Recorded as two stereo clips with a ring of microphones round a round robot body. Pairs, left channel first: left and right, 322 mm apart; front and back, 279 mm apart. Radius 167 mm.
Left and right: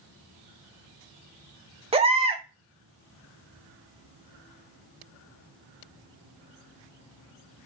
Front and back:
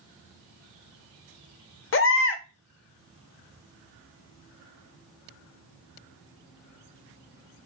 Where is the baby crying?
25° right, 0.6 m.